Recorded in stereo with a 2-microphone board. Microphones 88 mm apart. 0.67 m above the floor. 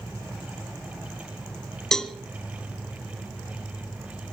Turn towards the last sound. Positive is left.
turn(degrees=5)  # may be behind; listen again after turning